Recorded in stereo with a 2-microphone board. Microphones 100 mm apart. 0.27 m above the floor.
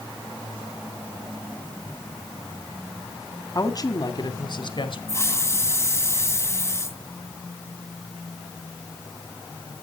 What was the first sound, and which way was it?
A woman speaking, 35° left (ahead or behind).